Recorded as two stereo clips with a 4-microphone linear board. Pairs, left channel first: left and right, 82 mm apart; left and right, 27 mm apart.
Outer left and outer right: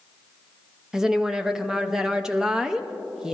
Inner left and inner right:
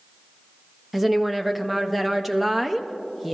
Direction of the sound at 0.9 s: 5° right (ahead or behind).